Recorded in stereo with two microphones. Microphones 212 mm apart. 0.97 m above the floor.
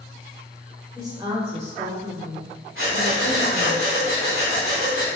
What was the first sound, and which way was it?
A woman speaking, 15° right (ahead or behind).